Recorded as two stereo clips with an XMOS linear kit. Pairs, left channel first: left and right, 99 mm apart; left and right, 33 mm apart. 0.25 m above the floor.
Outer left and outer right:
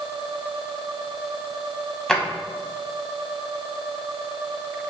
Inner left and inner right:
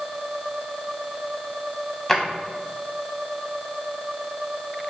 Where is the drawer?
5° left (ahead or behind), 0.6 m.